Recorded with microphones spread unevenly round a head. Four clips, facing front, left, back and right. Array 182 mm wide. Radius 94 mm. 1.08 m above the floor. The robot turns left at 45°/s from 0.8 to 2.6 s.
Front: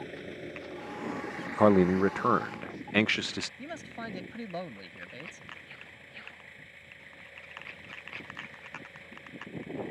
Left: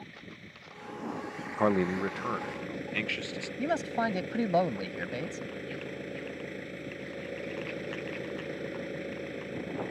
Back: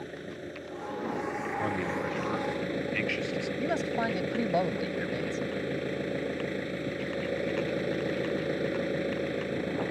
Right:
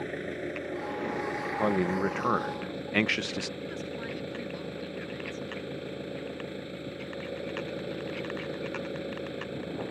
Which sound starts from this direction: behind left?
A man speaking, at 3.6 s.